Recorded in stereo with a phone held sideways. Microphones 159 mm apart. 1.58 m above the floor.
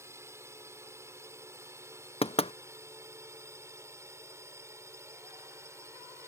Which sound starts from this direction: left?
Knocking, at 2.2 s.